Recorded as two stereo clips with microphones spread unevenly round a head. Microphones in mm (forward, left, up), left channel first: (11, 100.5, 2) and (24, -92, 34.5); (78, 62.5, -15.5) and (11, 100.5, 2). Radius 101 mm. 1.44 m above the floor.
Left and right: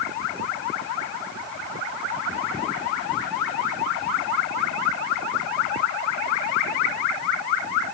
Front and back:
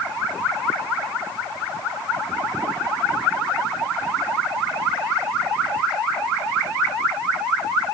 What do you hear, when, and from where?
Only background noise.